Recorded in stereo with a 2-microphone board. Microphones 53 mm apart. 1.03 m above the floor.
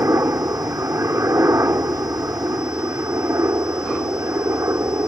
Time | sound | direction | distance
0.0 | a helicopter | 65° right (ahead or behind) | ?